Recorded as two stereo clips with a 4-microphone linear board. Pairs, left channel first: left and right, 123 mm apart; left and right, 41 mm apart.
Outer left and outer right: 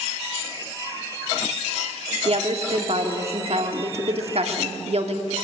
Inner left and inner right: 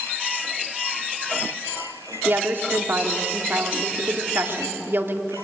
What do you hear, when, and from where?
2.2 s a woman speaking: 55° right (ahead or behind), 2 m